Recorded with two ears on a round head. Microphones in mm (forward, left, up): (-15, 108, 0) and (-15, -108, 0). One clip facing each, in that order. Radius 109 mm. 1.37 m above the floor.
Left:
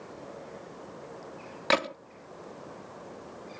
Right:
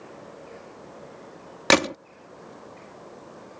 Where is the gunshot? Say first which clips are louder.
Right 7 dB; 60° right (ahead or behind).